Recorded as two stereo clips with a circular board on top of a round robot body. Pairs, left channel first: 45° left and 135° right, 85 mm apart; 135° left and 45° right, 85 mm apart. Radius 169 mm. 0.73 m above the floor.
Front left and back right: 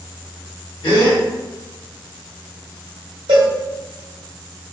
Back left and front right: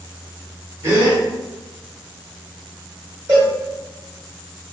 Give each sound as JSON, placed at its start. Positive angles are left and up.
{"t": 0.8, "sound": "a gasp", "azimuth_deg": 15, "distance_m": 1.4}
{"t": 3.3, "sound": "a cowbell", "azimuth_deg": -105, "distance_m": 0.6}